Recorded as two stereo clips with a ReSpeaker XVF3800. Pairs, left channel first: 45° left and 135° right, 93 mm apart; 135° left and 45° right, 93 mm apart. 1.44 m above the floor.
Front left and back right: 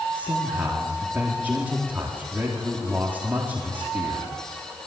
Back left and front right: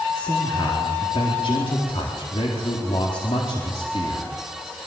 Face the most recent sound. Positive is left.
turn(degrees=155)